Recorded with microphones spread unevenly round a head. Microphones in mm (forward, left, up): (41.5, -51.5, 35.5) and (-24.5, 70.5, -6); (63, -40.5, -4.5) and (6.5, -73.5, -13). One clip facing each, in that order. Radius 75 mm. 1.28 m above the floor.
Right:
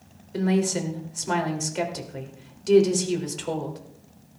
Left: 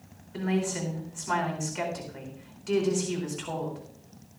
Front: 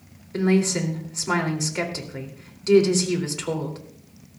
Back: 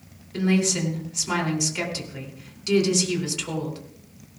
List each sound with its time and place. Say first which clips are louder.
0.3 s a woman speaking: right 6 dB, front 2 dB; 20° right, 3 m